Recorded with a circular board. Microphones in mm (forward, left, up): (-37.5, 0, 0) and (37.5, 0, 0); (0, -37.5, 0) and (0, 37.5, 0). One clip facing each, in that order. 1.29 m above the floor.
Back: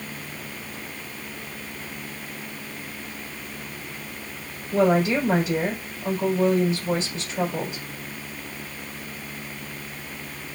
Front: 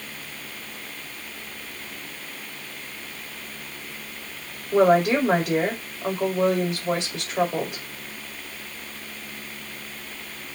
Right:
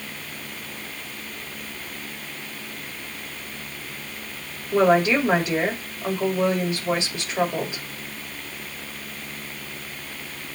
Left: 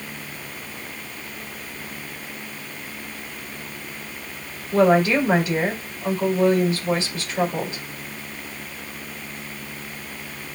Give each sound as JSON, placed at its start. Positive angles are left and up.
{"t": 4.7, "sound": "a woman speaking", "azimuth_deg": -20, "distance_m": 5.0}